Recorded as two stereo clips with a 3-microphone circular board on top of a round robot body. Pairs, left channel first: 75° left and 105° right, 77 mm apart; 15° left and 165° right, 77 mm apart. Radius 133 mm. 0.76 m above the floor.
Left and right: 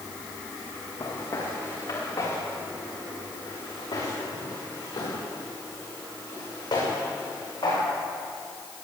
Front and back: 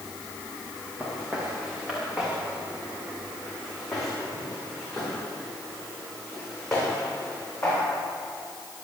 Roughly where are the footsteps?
Behind left.